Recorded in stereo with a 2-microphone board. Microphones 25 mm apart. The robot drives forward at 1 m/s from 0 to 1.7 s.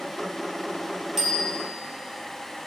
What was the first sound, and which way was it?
A bicycle bell, 5° right (ahead or behind).